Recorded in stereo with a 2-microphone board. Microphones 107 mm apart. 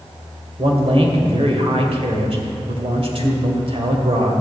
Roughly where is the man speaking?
Right.